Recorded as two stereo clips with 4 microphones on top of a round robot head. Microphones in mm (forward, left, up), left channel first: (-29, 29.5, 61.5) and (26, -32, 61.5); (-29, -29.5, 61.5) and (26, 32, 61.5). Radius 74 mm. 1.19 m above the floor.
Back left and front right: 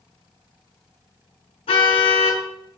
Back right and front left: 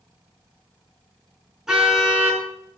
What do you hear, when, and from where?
1.7 s a car horn: 135° left, 6.5 m